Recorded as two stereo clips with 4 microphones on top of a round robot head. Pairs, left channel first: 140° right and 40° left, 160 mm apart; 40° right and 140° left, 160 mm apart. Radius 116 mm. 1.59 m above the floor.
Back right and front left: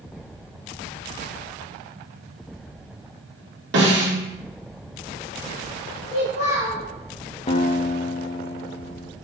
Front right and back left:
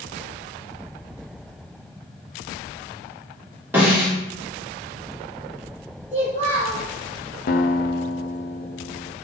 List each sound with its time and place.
3.7 s a snare drum: 60° left, 3 m
6.1 s a child speaking: 85° left, 3 m
7.5 s a guitar: 80° right, 0.5 m